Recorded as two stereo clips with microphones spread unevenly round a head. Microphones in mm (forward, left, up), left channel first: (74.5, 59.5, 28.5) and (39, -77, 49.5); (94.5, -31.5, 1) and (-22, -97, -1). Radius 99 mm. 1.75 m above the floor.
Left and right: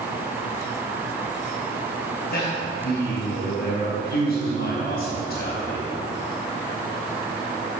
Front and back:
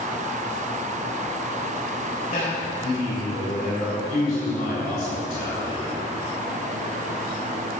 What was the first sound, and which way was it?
A man speaking, 85° left.